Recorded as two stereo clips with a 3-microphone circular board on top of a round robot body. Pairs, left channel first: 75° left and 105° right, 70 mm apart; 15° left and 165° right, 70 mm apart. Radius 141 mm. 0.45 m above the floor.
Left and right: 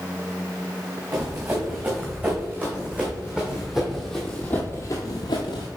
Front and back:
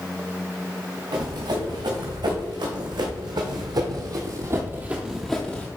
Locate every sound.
1.1 s running footsteps: 170° right, 2 m; by 5.7 s 80° left, 0.7 m